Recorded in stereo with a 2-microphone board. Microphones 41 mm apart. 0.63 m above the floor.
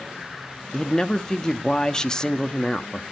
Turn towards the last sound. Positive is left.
turn(degrees=15)  # may be behind; listen again after turning